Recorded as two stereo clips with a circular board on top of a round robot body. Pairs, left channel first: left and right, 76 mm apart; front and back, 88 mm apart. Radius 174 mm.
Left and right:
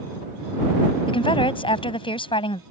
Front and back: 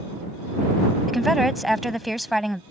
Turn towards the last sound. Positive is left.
turn(degrees=90)